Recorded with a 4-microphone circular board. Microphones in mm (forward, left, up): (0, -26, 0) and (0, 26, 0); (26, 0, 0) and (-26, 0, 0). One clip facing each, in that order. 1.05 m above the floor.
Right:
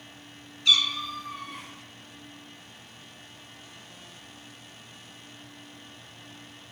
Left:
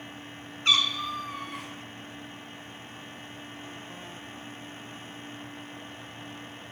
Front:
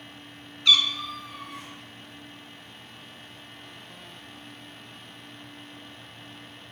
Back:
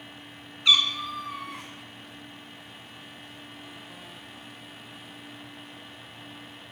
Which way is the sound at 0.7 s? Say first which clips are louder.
Right 1 dB, front 1 dB; 120° left.